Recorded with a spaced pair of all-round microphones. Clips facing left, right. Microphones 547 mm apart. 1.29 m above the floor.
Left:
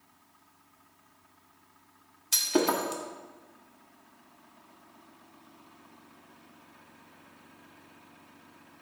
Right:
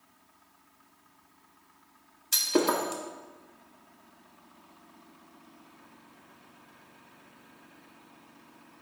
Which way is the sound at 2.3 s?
10° left (ahead or behind).